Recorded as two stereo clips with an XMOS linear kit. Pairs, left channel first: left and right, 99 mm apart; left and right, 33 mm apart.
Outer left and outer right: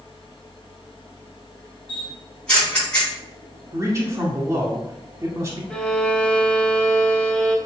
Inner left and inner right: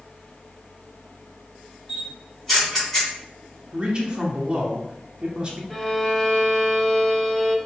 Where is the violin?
10° left (ahead or behind), 0.6 m.